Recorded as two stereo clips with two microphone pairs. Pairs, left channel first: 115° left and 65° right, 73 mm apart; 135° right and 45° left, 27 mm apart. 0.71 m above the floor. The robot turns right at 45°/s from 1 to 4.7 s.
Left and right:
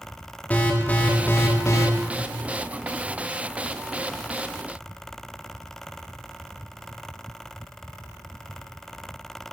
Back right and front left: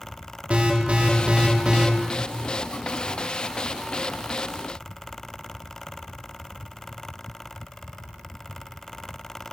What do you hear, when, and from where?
0.5 s an alarm: 50° left, 1.9 m; by 1.9 s 90° left, 1.9 m